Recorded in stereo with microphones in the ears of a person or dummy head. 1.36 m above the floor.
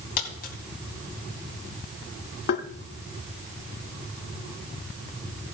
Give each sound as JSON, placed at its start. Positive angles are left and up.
{"t": 0.2, "sound": "a dropped coin", "side_deg": 55, "distance_m": 2.5}
{"t": 2.5, "sound": "tapping", "side_deg": 60, "distance_m": 1.0}